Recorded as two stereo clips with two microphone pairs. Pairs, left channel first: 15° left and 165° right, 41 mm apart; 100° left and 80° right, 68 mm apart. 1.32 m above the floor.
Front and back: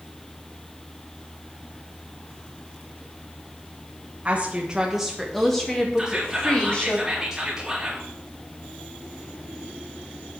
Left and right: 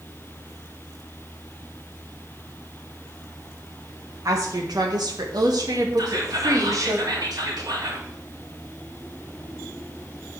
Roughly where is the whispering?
Right.